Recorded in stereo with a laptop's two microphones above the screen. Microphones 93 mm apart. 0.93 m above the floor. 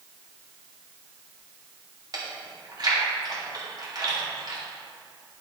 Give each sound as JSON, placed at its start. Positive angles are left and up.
{"t": 2.1, "sound": "chewing", "side_deg": -50, "distance_m": 2.5}